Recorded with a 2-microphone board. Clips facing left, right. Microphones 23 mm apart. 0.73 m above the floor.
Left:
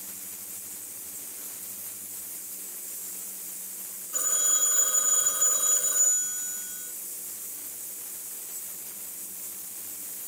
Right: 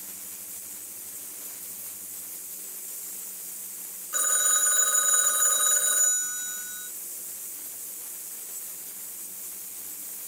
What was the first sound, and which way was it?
A phone ringing, 80° right.